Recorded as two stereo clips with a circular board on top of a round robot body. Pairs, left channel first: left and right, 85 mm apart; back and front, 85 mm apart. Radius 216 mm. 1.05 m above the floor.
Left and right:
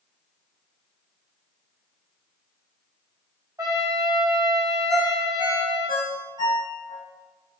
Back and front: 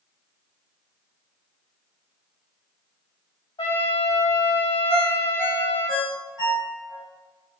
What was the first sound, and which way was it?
A trumpet, 140° right.